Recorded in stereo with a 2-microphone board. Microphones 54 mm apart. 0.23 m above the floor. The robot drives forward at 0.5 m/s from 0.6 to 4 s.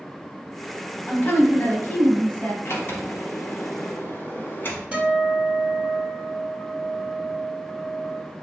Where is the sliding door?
50° left (ahead or behind), 0.8 m; by 4.9 s 40° left (ahead or behind), 1.0 m.